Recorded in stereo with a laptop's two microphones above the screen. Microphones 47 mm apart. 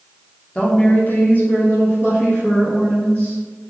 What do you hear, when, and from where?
0.6 s a woman speaking: 25° left (ahead or behind), 0.7 m; by 3.4 s 40° left (ahead or behind), 1.6 m